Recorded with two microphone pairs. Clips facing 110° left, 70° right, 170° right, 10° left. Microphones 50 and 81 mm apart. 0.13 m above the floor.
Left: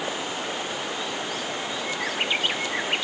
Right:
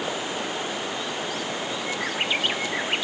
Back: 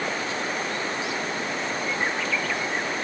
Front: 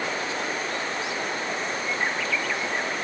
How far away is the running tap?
I don't hear a running tap.